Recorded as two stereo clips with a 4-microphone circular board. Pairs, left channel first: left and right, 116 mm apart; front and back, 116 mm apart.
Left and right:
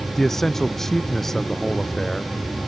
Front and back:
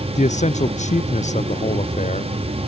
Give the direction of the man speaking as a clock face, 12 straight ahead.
12 o'clock.